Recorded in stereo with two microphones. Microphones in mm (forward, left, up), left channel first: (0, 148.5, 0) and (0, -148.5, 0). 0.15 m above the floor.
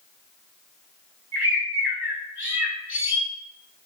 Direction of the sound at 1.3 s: 40° left (ahead or behind).